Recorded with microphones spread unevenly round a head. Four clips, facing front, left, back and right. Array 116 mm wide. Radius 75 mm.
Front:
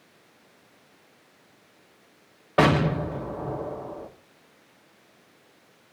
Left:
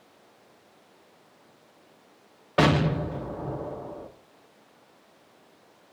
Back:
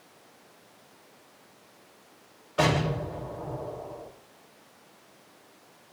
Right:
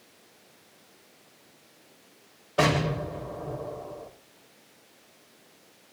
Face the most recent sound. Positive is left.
turn(degrees=10)